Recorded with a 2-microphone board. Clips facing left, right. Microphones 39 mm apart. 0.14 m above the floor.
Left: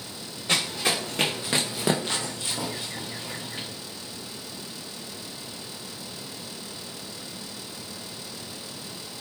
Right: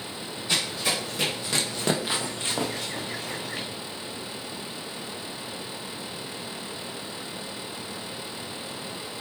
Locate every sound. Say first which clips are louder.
0.5 s running footsteps: left 2 dB; 50° left (ahead or behind), 1.2 m; by 3.7 s 80° right, 1.1 m